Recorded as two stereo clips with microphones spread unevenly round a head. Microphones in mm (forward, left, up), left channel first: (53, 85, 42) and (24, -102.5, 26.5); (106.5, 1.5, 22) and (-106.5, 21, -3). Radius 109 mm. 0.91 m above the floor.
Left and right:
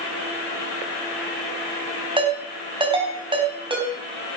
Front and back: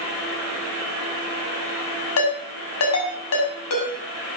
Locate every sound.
2.2 s a ringtone: 35° right, 5 m